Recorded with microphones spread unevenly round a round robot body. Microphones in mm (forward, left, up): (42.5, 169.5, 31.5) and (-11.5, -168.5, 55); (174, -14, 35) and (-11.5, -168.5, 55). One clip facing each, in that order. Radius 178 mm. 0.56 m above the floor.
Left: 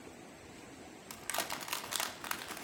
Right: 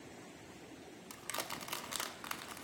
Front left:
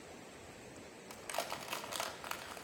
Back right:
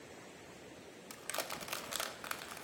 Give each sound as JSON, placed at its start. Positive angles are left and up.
{"t": 1.1, "sound": "crushing", "azimuth_deg": 160, "distance_m": 1.1}